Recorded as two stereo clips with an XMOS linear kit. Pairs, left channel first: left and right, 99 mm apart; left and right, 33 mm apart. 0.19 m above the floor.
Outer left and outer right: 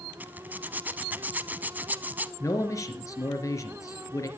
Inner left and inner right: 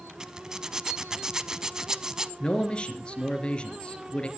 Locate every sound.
0.2 s a zipper: 20° right (ahead or behind), 0.7 m
2.4 s a man speaking: 30° left (ahead or behind), 3 m